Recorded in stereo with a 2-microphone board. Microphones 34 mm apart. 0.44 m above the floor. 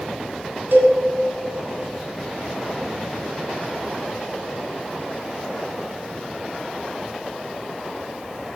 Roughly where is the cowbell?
Right.